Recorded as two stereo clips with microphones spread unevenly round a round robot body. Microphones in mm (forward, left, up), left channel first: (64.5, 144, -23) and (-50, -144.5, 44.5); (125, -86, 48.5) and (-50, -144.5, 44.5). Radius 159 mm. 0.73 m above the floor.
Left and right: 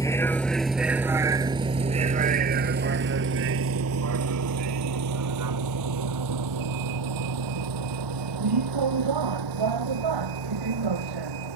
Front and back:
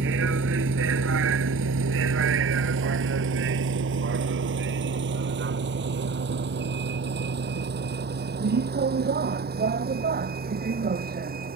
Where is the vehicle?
150° left; by 11.6 s 125° right.